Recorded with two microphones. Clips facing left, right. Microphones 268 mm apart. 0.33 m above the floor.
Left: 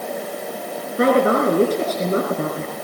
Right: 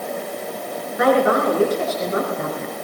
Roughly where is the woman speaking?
Left.